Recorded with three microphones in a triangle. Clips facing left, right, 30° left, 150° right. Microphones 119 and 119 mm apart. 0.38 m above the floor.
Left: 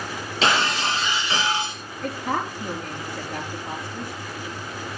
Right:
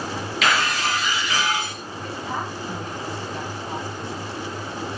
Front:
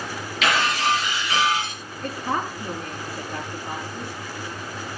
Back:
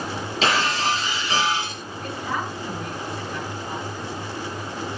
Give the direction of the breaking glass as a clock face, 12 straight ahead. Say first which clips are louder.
Left 1 dB, even; 7 o'clock.